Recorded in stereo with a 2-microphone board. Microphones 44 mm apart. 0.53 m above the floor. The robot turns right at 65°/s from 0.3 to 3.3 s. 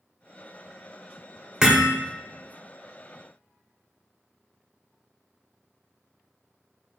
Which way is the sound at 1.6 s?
15° right (ahead or behind).